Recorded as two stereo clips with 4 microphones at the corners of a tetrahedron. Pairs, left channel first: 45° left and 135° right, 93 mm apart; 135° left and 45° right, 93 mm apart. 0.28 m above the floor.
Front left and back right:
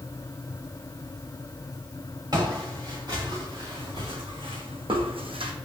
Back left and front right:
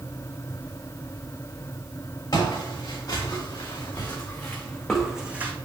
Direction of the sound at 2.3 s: 175° right.